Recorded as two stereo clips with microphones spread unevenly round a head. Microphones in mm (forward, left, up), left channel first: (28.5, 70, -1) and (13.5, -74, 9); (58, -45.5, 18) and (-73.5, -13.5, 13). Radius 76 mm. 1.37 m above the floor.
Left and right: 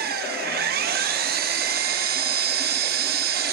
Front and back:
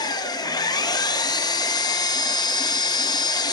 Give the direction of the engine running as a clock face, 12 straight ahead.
3 o'clock.